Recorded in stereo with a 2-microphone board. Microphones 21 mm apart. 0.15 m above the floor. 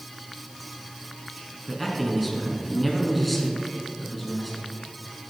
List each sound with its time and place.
1.7 s a man speaking: 5° left (ahead or behind), 1.9 m